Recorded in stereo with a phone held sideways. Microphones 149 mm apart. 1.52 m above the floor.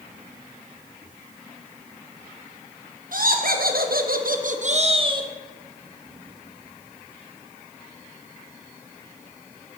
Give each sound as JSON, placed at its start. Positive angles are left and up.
{"t": 3.1, "sound": "laughter", "side_deg": -75, "distance_m": 1.5}